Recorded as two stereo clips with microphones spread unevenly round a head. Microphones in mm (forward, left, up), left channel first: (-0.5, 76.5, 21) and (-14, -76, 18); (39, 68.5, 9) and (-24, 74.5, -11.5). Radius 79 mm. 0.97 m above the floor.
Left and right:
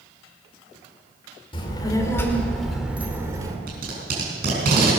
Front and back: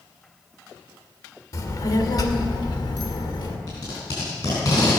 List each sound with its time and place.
1.5 s a child speaking: 25° left, 2 m; by 3.6 s 30° right, 2 m
3.7 s tape being pulled: 60° right, 4.5 m